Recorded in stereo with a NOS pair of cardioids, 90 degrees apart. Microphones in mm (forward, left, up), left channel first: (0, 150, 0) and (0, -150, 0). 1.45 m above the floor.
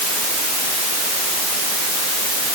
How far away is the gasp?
No gasp in this recording.